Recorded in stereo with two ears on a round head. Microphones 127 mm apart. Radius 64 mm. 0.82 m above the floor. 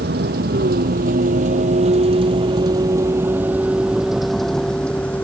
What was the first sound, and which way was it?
A vehicle, 80° right.